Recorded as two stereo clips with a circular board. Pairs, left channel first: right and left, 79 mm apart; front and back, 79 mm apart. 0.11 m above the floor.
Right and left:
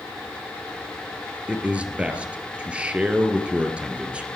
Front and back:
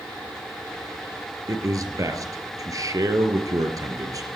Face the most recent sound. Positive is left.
turn(degrees=160)